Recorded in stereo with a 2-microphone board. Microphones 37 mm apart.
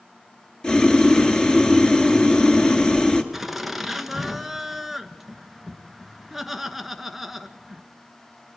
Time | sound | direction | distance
0.6 | boiling | 25° left (ahead or behind) | 1.4 m
3.3 | laughter | 5° right (ahead or behind) | 1.2 m